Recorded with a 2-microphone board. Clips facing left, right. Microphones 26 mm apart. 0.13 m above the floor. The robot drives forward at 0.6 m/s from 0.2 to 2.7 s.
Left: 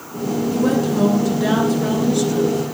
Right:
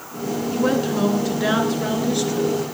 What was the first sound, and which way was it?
A woman speaking, 25° right (ahead or behind).